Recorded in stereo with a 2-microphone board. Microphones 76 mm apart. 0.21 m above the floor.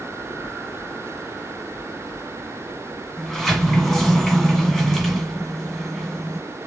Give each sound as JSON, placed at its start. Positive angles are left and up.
{"t": 3.2, "sound": "a sliding door", "side_deg": 0, "distance_m": 1.5}